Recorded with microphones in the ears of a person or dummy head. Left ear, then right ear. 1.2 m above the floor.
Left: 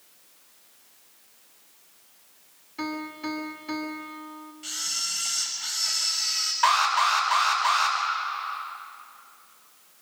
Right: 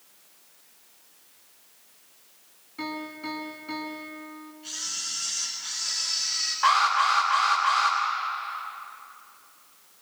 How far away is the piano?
About 2 m.